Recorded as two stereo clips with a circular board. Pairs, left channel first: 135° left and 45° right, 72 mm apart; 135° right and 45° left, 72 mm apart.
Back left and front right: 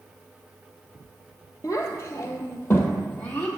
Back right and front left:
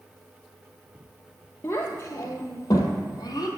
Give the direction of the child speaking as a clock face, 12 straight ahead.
6 o'clock.